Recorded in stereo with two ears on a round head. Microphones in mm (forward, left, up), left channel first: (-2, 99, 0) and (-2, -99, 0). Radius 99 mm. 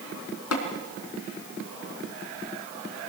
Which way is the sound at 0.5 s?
80° left.